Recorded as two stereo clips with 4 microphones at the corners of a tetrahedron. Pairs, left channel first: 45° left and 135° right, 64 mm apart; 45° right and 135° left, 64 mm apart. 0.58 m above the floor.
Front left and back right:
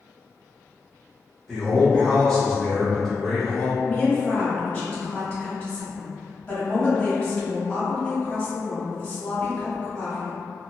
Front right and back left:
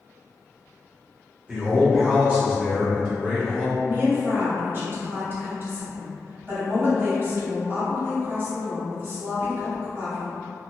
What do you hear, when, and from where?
1.5 s a man speaking: 120° left, 0.9 m
3.8 s a woman speaking: 110° left, 1.1 m